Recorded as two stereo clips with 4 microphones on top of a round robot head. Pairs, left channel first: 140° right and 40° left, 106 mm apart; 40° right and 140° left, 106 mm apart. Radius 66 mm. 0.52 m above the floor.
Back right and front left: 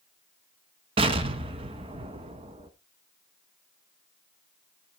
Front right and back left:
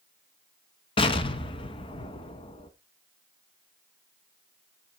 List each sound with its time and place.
1.0 s an explosion: straight ahead, 1.1 m